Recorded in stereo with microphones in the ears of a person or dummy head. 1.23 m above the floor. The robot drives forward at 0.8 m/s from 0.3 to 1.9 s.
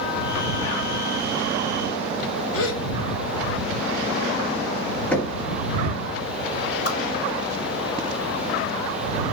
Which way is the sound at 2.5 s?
75° left (ahead or behind).